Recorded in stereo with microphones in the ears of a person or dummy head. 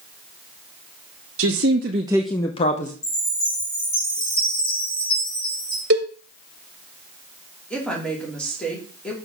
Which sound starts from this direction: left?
A chime, at 3.0 s.